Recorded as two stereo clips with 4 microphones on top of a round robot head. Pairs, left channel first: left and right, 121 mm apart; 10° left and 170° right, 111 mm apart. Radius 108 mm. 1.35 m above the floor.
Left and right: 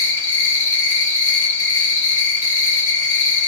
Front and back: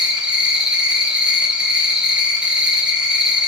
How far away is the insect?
About 4.5 m.